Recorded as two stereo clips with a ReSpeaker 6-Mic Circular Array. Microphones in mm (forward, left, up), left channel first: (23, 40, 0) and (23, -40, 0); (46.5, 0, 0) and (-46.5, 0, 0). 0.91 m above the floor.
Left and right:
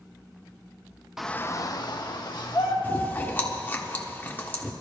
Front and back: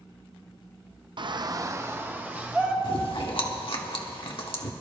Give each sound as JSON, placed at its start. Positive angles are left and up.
{"t": 1.2, "sound": "a shout", "azimuth_deg": -175, "distance_m": 0.6}
{"t": 2.8, "sound": "chewing", "azimuth_deg": 25, "distance_m": 1.2}